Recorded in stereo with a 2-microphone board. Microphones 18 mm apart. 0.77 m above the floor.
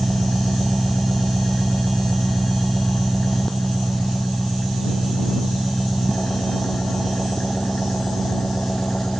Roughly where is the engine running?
Left.